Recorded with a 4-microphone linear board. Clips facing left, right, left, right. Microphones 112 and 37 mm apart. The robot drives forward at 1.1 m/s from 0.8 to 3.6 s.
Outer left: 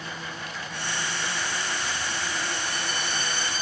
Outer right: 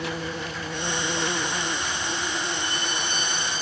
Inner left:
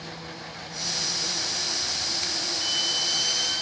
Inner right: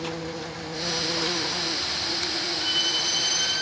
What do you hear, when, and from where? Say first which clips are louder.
0.0 s an insect: outer right 6 dB, inner right 7 dB; 75° right (ahead or behind), 1.0 m; by 3.6 s 20° right (ahead or behind), 3 m
2.6 s a violin: outer right 2 dB, inner right 2 dB; 70° right (ahead or behind), 7 m; by 3.6 s 65° right (ahead or behind), 7.5 m